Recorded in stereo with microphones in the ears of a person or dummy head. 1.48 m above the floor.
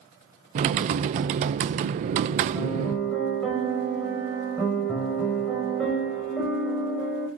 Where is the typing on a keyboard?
40° right (ahead or behind), 0.6 m.